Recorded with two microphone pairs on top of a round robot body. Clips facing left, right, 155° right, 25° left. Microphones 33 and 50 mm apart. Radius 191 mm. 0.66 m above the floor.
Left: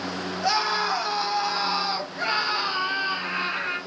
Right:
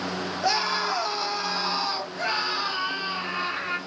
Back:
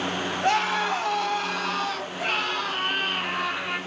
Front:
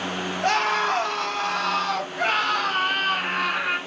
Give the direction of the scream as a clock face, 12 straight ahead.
12 o'clock.